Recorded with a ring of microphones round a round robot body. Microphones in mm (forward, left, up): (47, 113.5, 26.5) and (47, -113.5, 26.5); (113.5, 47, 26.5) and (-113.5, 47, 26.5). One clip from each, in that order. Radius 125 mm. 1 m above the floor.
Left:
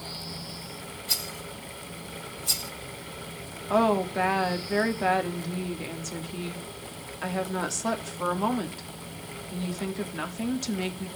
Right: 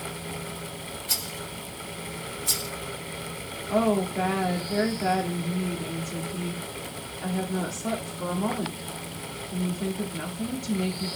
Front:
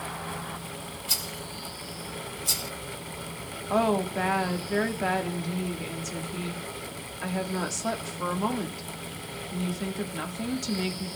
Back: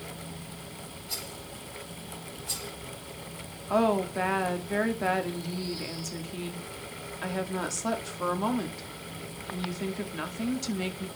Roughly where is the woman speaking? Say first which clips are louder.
Left 1 dB, even; left.